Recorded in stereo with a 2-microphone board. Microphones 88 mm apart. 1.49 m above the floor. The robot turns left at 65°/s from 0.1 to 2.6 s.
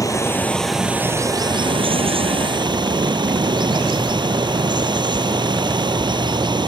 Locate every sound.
0.0 s running water: 40° left; by 6.7 s 125° right